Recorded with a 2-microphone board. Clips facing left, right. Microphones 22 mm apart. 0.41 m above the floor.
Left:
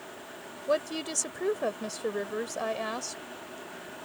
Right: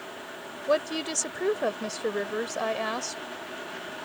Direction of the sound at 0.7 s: 15° right (ahead or behind).